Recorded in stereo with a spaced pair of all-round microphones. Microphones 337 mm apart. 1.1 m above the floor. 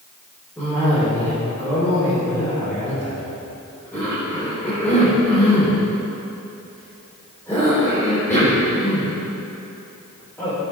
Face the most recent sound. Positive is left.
turn(degrees=10)  # may be behind; listen again after turning